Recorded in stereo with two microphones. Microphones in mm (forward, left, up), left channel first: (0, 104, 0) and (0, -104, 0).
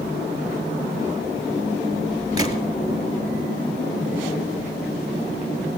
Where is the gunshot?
20° right (ahead or behind), 1.2 m.